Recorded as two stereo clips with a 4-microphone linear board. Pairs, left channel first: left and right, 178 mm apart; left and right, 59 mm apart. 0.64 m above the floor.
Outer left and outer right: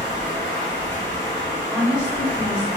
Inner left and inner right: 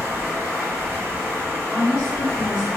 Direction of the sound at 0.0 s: 35° right (ahead or behind).